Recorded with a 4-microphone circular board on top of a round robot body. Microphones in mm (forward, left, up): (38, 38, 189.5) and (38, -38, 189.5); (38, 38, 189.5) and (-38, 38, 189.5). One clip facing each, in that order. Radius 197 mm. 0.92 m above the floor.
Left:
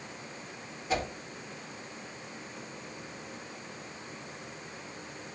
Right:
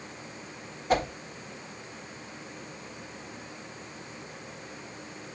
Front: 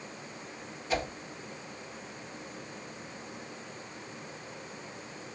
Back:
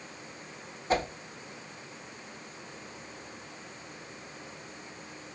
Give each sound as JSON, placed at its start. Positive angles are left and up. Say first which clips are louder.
{"t": 0.9, "sound": "a whoosh", "louder": "right 6 dB, back 4 dB", "azimuth_deg": -130, "distance_m": 0.7}